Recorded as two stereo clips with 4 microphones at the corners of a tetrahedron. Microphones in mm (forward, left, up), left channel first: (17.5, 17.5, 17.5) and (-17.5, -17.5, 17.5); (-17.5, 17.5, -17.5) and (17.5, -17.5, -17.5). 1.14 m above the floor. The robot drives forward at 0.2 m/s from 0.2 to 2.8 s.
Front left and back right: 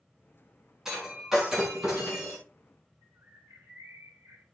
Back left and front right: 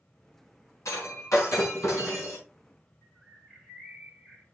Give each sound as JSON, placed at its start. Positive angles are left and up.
{"t": 0.8, "sound": "breaking glass", "azimuth_deg": 145, "distance_m": 5.5}
{"t": 3.0, "sound": "a bird", "azimuth_deg": -135, "distance_m": 2.0}